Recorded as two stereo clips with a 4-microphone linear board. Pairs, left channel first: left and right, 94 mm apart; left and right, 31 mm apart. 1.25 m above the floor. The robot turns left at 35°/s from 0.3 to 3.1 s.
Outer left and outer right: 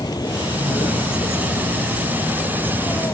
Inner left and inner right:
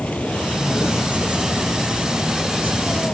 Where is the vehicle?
135° left; by 3.1 s 35° left.